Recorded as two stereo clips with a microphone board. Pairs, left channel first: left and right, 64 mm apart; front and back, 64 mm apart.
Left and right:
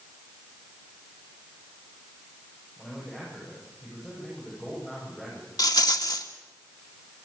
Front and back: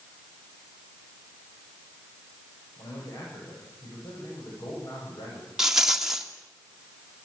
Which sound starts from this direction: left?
A rattle, at 5.6 s.